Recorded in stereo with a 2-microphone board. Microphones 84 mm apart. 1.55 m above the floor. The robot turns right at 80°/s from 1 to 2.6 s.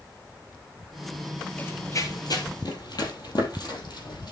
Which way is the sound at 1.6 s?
25° left (ahead or behind).